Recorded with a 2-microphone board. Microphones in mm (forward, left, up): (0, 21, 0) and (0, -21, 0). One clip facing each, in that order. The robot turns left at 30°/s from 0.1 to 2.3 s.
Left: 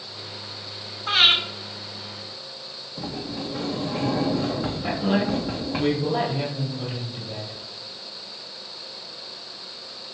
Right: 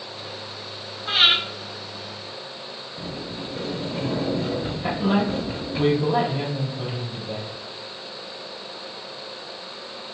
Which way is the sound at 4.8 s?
20° right (ahead or behind).